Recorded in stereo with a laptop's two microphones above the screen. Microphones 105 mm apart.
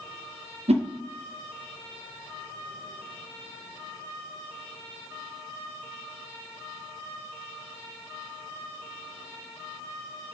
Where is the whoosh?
75° right (ahead or behind), 0.7 m.